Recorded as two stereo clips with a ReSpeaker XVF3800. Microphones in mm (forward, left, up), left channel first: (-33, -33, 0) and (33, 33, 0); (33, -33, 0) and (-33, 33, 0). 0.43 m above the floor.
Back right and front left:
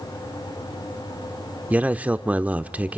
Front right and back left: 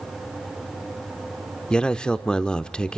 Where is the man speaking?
15° left, 0.8 m.